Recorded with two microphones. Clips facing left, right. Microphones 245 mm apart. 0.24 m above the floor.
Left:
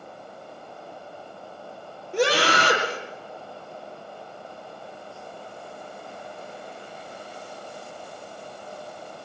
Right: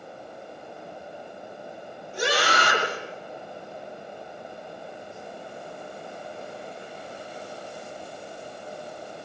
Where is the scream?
70° left (ahead or behind), 7.5 m.